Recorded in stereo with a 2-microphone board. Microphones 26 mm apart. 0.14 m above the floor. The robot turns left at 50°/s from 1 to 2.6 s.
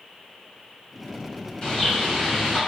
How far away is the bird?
About 1.4 m.